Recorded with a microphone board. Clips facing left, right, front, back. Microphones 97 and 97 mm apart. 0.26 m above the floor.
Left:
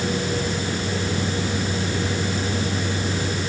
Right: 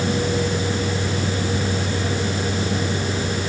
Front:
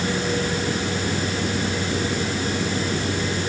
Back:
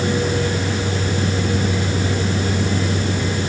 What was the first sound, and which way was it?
Only background noise.